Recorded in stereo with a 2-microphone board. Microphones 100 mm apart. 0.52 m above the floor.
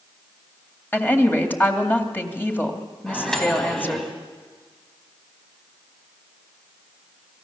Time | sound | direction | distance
0.9 | a woman speaking | 20° left (ahead or behind) | 2.5 m
3.1 | a microwave | 5° left (ahead or behind) | 3.5 m